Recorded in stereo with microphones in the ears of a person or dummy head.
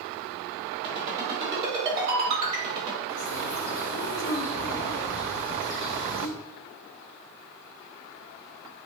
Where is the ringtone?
30° right (ahead or behind), 1.5 m.